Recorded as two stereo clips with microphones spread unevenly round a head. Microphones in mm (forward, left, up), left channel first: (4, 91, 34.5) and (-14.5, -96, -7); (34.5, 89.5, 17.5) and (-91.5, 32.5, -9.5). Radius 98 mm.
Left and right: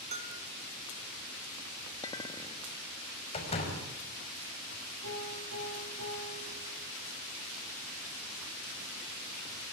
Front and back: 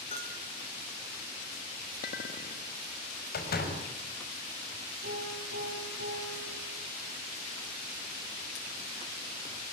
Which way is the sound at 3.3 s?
25° left.